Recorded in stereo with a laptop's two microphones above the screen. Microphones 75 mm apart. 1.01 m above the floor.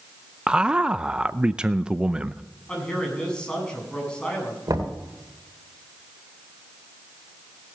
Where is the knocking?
65° right (ahead or behind), 2 m.